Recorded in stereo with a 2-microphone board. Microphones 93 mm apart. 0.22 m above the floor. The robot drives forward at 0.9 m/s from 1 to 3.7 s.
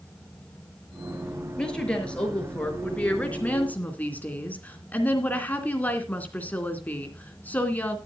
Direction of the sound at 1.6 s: 10° left (ahead or behind).